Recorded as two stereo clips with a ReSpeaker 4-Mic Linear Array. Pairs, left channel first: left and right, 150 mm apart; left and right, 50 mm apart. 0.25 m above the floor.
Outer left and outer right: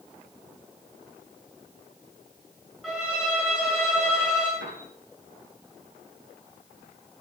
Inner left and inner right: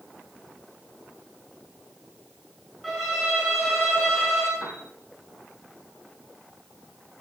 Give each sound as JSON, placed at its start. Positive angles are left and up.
{"t": 2.8, "sound": "a violin", "side_deg": -5, "distance_m": 7.5}
{"t": 4.6, "sound": "a piano", "side_deg": -85, "distance_m": 5.0}